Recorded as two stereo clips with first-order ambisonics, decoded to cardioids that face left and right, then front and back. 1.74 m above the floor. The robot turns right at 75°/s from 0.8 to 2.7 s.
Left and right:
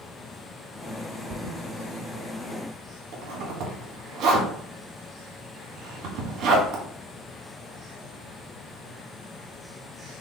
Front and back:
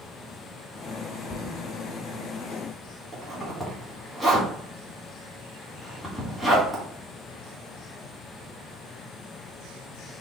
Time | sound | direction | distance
1.3 | a thud | 20° right | 1.8 m
3.1 | a zipper | 90° right | 1.4 m